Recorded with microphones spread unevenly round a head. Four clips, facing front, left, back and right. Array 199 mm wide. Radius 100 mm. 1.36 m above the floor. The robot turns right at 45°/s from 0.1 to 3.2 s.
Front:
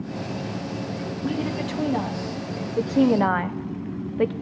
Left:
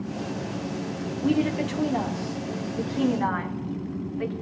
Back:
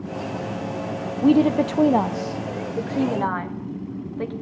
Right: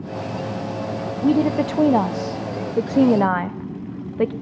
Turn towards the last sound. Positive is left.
turn(degrees=-65)